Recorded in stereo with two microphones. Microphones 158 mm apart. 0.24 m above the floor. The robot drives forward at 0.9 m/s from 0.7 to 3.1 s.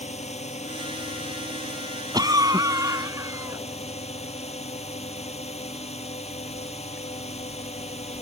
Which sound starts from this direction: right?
A cough, at 2.1 s.